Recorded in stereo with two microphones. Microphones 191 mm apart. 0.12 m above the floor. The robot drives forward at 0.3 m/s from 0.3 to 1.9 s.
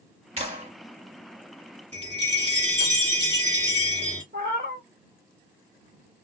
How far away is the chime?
About 2 m.